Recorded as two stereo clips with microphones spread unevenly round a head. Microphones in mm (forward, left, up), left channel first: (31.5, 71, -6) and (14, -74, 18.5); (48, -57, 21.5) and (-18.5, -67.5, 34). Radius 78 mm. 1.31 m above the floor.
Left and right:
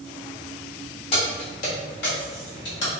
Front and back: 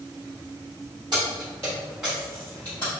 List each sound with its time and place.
1.1 s keys jangling: 140° left, 1.0 m; by 2.9 s 85° left, 1.1 m